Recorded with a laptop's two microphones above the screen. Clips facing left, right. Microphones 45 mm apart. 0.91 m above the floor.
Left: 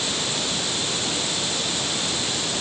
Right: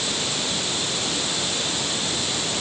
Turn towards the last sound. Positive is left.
No sound to turn to.